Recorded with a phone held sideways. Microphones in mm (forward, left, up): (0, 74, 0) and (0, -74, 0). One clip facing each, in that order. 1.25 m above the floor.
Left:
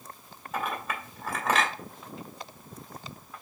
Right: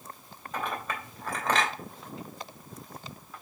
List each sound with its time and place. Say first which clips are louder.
0.5 s a clink: left 1 dB; 5° left (ahead or behind), 2 m